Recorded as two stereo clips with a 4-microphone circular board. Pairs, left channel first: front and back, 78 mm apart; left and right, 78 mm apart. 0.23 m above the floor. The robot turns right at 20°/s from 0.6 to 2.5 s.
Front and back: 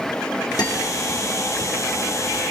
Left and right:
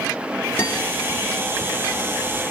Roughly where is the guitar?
Ahead left.